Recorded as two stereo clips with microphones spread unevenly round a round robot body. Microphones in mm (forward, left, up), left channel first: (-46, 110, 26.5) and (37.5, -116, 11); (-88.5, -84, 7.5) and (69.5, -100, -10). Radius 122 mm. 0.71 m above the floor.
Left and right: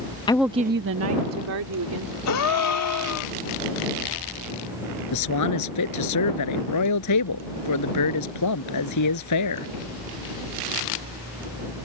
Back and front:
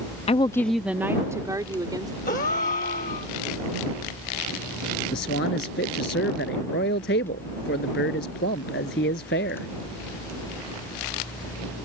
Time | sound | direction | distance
0.3 | a woman speaking | 170° left | ?
2.3 | a gasp | 120° left | ?
5.1 | a man speaking | 125° left | ?